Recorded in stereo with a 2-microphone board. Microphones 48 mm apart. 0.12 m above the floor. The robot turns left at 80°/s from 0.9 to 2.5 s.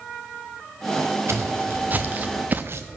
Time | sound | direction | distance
1.3 | footsteps | 70° right (ahead or behind) | 1.7 m